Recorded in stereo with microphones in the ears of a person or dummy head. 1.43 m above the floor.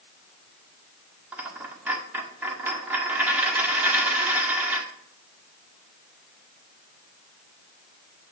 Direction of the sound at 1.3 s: 10° right (ahead or behind).